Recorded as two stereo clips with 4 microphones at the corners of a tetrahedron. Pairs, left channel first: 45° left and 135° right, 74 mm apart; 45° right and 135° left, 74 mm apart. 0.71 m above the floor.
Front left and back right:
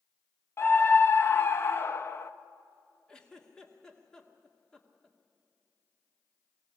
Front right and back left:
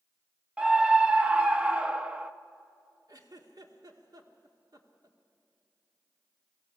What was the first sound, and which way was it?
A scream, 70° left.